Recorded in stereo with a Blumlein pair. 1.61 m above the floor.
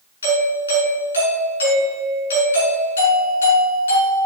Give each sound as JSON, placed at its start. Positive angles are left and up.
{"t": 0.2, "sound": "a doorbell", "azimuth_deg": 70, "distance_m": 6.0}